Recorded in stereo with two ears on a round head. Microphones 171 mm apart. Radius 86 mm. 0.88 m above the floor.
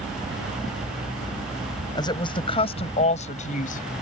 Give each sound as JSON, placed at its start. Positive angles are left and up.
{"t": 1.9, "sound": "a woman speaking", "side_deg": 20}